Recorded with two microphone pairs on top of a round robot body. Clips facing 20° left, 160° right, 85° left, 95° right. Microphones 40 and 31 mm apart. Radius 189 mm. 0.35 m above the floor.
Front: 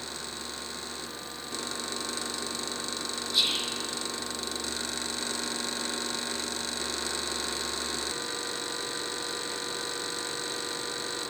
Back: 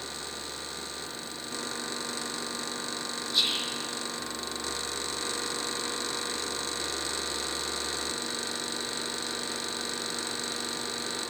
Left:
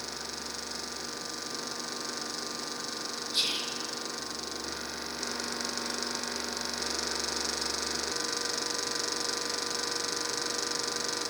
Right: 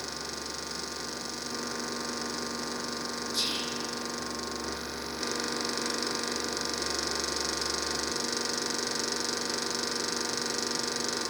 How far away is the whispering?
About 2 m.